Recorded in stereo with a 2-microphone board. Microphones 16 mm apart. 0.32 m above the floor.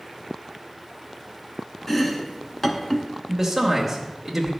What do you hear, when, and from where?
1.9 s chopping: 20° left (ahead or behind), 0.9 m
3.3 s a man speaking: 15° right (ahead or behind), 1.0 m